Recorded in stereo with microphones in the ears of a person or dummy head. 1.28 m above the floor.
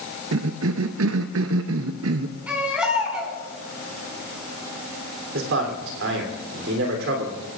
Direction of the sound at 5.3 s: 65° right (ahead or behind).